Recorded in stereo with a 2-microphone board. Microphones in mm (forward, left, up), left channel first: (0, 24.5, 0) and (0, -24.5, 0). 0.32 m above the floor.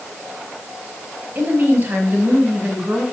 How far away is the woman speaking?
About 2.5 m.